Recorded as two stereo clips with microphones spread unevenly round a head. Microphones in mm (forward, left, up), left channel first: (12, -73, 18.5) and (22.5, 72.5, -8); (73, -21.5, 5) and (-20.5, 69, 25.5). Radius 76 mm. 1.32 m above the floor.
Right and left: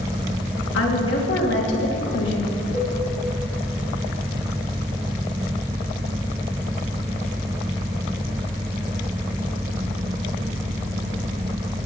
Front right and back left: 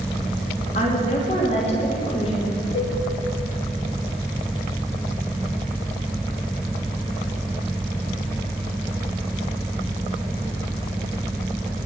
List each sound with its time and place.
0.7 s a woman speaking: 95° right, 2.5 m
2.7 s a cowbell: 10° right, 6 m